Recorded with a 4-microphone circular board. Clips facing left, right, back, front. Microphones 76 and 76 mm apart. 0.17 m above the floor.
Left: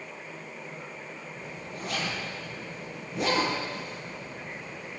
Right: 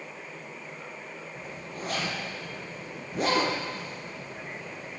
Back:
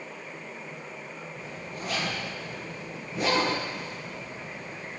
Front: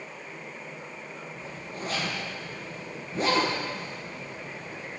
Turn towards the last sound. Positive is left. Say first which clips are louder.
# right 1 dB, even
turn(degrees=-50)